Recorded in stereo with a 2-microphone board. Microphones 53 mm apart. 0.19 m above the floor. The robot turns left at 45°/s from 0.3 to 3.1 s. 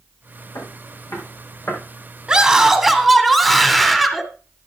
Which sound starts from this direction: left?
Footsteps, at 0.6 s.